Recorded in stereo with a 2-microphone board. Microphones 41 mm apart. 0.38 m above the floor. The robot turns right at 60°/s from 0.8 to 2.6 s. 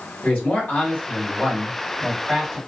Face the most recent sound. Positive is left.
turn(degrees=-165)